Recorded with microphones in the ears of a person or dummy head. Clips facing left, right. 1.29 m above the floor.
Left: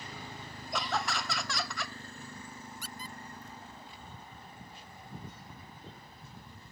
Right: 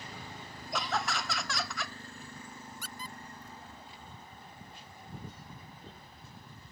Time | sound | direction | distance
0.7 | laughter | centre (ahead or behind) | ?
2.8 | a squeak | 75° right (ahead or behind) | ?